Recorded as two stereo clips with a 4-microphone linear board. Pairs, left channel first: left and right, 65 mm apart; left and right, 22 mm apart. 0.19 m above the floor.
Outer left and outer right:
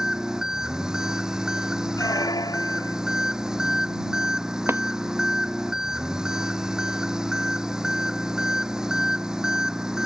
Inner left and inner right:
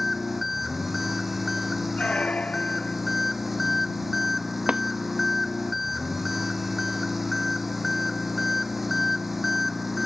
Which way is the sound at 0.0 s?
10° right (ahead or behind).